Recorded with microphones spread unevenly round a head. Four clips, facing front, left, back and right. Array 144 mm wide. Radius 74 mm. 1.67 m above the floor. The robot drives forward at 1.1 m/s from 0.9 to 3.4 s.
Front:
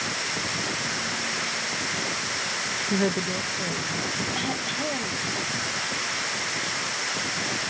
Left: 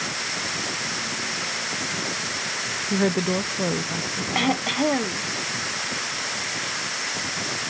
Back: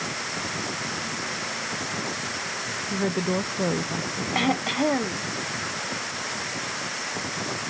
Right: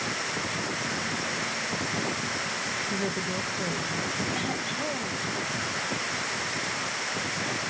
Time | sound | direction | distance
2.9 | a woman speaking | 50° left | ?
4.3 | throat clearing | 125° left | ?